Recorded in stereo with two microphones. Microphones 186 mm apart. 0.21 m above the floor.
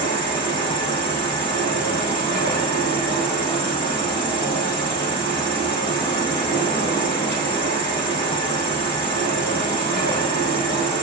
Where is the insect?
30° left (ahead or behind), 1.5 m.